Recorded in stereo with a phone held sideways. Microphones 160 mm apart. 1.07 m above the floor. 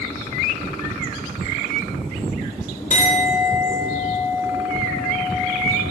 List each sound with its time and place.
2.9 s a clink: 55° left (ahead or behind), 2.5 m